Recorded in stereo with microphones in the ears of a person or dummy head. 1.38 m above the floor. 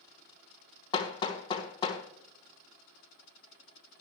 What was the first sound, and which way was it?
Hammering, 25° left (ahead or behind).